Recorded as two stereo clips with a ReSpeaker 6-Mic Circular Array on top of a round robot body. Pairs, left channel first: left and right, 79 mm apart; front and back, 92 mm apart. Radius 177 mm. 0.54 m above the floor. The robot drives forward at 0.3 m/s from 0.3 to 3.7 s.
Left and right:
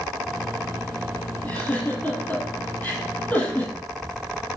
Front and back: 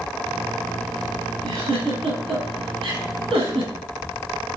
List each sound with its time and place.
1.4 s a giggle: 160° left, 7 m